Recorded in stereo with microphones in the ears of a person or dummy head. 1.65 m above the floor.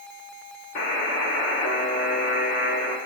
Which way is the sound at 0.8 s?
45° left (ahead or behind).